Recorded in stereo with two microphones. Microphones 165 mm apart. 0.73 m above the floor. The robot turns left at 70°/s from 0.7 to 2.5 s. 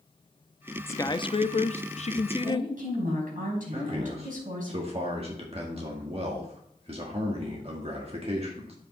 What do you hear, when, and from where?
0.9 s a man speaking: 160° left, 0.6 m; by 2.7 s 45° left, 0.6 m
2.4 s a woman speaking: 50° right (ahead or behind), 4.5 m; by 4.7 s 60° right (ahead or behind), 4.5 m
3.7 s a man speaking: 40° right (ahead or behind), 1.7 m